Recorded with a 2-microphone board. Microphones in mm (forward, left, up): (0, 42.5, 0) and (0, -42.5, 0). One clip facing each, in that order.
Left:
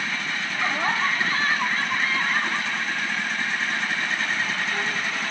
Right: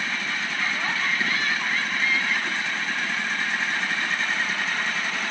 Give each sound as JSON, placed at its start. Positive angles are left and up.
{"t": 0.5, "sound": "laughter", "side_deg": 30}